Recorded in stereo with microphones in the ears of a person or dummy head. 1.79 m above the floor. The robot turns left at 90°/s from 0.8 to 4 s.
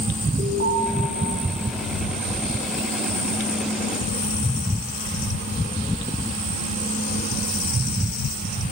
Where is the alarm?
35° right (ahead or behind), 7.5 m.